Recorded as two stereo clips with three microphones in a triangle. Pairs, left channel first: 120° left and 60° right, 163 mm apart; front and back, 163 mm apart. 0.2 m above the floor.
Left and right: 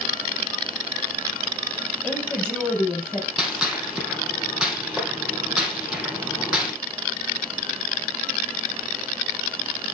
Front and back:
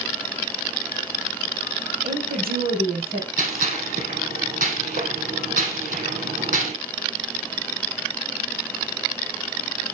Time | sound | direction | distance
2.0 | a woman speaking | 155° right | 4.5 m
3.4 | a gunshot | 145° right | 3.5 m